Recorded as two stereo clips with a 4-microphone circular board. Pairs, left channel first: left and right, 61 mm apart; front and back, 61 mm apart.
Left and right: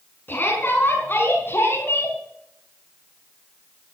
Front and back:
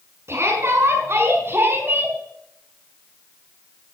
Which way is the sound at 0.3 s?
145° left.